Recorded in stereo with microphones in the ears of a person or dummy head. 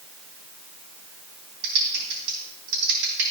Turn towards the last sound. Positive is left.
turn(degrees=-55)  # may be behind; listen again after turning